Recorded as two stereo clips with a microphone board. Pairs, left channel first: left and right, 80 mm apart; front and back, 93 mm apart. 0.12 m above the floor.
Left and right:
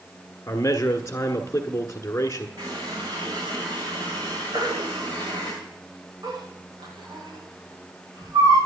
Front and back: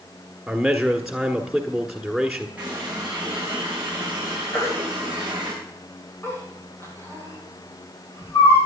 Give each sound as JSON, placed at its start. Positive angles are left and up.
{"t": 0.5, "sound": "a man speaking", "azimuth_deg": 95, "distance_m": 1.2}
{"t": 2.6, "sound": "a running tap", "azimuth_deg": -105, "distance_m": 6.5}
{"t": 4.5, "sound": "a baby crying", "azimuth_deg": -60, "distance_m": 8.5}